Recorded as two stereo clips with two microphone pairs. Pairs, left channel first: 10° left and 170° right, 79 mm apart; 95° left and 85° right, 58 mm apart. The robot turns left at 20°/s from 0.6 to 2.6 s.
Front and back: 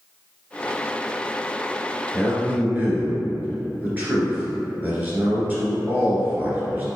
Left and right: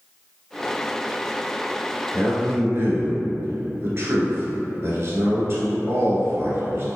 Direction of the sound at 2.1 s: 100° right.